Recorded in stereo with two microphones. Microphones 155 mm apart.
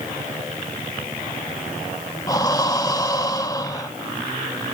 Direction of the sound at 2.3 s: 25° left (ahead or behind).